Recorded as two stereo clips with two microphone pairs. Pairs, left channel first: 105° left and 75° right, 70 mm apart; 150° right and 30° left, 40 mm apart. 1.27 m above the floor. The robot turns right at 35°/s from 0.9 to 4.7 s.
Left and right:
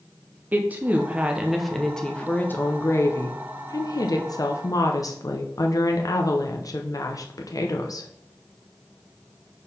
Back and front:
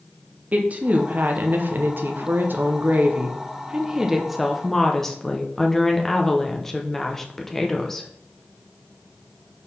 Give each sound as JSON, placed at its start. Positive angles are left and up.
{"t": 0.5, "sound": "a woman speaking", "azimuth_deg": -5, "distance_m": 0.7}